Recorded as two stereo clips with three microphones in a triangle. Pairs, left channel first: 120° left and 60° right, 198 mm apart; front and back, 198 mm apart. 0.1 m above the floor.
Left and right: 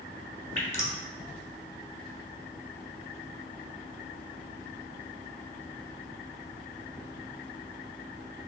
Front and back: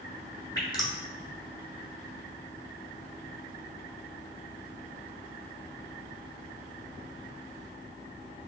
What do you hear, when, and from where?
0.6 s dripping: 65° left, 0.6 m